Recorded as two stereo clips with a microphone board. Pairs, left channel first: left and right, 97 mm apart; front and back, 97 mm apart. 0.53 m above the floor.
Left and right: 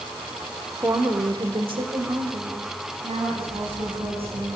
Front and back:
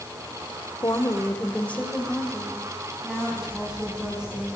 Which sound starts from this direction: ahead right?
A woman speaking, at 0.8 s.